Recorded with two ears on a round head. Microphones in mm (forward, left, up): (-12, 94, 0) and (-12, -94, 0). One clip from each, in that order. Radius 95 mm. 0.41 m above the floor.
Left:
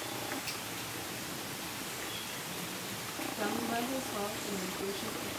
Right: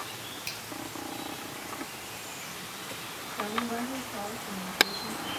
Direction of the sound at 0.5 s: 50° right (ahead or behind).